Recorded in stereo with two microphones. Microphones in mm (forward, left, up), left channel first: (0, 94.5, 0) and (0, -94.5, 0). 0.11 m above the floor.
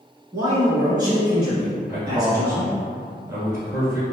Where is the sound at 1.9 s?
20° right (ahead or behind), 1.4 m.